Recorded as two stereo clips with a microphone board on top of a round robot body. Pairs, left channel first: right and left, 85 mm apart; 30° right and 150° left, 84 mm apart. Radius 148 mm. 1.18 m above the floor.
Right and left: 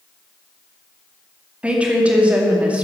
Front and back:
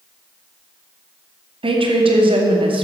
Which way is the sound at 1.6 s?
165° left.